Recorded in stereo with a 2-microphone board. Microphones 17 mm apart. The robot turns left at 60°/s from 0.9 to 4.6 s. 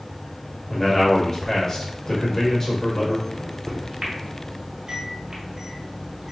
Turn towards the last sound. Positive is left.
turn(degrees=-40)  # may be behind; listen again after turning